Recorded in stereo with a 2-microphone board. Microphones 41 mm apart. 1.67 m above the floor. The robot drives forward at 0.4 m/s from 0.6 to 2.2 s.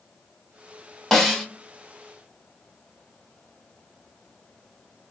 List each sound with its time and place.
1.1 s a snare drum: 5° left (ahead or behind), 1.0 m